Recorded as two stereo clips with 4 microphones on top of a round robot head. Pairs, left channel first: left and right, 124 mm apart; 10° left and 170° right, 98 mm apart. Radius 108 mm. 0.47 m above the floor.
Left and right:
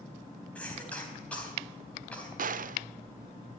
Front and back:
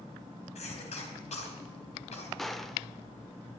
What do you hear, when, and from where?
0.6 s a cough: 10° left, 3.5 m
2.4 s a gunshot: 75° right, 0.5 m